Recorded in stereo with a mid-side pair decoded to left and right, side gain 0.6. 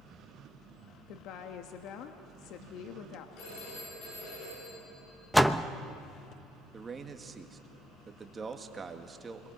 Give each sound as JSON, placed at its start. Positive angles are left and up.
{"t": 1.1, "sound": "a woman speaking", "azimuth_deg": 65, "distance_m": 1.3}
{"t": 3.4, "sound": "a phone ringing", "azimuth_deg": 65, "distance_m": 7.5}
{"t": 5.3, "sound": "a door slam", "azimuth_deg": 0, "distance_m": 0.8}
{"t": 6.7, "sound": "a man speaking", "azimuth_deg": -30, "distance_m": 1.9}